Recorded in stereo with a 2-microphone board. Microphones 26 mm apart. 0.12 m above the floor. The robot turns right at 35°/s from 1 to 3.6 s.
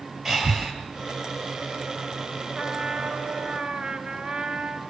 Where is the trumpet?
100° right, 1.7 m; by 4.8 s 65° right, 1.7 m.